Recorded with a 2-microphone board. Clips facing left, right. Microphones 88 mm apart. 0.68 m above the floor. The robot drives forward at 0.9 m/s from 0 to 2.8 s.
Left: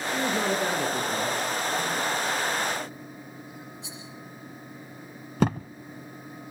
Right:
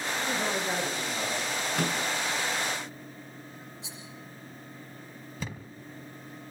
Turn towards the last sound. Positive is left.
turn(degrees=60)  # may be behind; listen again after turning